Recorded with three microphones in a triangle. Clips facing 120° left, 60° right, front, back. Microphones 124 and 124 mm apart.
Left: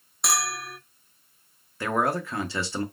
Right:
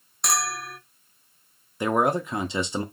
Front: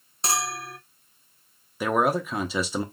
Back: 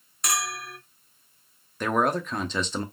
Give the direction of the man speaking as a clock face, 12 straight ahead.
2 o'clock.